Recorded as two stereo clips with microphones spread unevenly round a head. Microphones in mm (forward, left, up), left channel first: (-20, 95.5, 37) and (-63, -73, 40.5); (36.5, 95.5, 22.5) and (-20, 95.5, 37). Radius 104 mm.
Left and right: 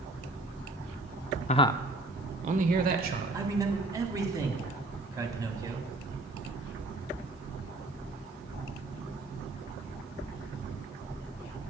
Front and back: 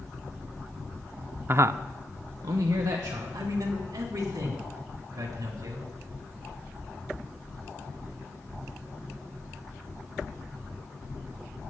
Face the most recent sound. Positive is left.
turn(degrees=-175)